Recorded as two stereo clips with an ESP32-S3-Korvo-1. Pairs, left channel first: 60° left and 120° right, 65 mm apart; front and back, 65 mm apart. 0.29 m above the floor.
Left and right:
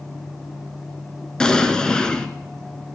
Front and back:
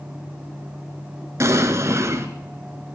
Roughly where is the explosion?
Behind left.